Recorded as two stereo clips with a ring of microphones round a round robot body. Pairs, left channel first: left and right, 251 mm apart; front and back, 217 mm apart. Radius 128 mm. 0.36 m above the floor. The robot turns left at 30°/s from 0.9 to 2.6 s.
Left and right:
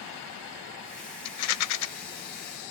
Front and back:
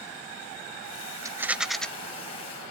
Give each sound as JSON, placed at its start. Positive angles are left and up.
{"t": 1.2, "sound": "a rattle", "azimuth_deg": 105, "distance_m": 0.7}